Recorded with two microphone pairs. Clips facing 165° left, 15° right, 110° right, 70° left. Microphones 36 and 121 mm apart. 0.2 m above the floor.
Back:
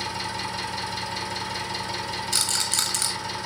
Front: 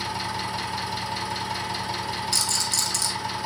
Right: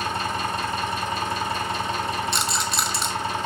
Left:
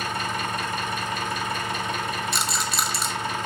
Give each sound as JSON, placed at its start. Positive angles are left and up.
{"t": 0.0, "sound": "an engine running", "azimuth_deg": -85, "distance_m": 0.7}
{"t": 2.3, "sound": "a rattle", "azimuth_deg": 155, "distance_m": 0.6}